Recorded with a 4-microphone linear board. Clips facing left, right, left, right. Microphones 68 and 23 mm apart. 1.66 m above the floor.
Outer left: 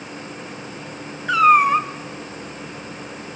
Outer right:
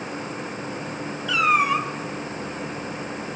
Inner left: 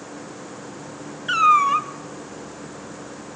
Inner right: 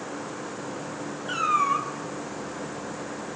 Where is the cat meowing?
40° left (ahead or behind), 1.4 m.